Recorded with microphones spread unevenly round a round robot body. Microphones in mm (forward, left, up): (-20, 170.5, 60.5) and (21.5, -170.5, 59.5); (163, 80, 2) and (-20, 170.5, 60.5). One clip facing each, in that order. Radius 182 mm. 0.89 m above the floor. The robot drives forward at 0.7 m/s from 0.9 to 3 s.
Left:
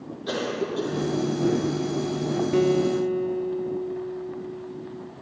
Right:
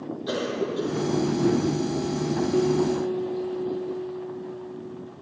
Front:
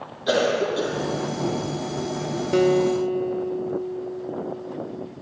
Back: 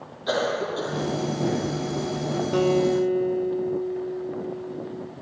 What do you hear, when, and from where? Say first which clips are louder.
0.3 s a cough: even, front 4 dB; 10° left, 0.8 m; by 2.1 s 160° left, 0.6 m
2.5 s a guitar: left 2 dB, front 2 dB; 55° left, 0.6 m; by 5.1 s 105° left, 0.5 m